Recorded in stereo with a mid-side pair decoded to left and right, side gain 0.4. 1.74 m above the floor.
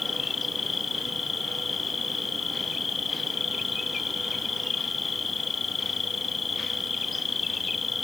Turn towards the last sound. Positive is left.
turn(degrees=40)